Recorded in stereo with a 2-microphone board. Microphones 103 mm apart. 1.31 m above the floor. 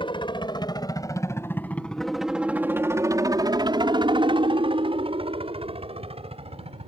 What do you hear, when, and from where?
0.0 s a helicopter: 55° left (ahead or behind); by 6.9 s 70° right (ahead or behind)